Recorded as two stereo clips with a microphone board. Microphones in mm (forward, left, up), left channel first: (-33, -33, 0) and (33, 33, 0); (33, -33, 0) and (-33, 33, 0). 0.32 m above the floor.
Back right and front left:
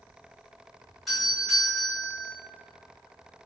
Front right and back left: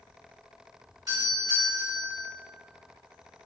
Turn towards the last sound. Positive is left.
turn(degrees=135)